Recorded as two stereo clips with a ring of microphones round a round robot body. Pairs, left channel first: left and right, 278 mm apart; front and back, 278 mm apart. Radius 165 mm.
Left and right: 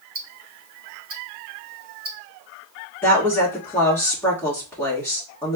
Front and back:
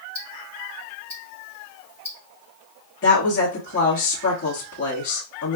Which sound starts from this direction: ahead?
A woman speaking, at 3.0 s.